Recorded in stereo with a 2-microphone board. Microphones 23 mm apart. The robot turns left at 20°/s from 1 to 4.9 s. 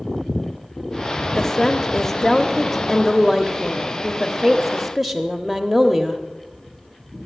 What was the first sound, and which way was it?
A woman speaking, 20° left (ahead or behind).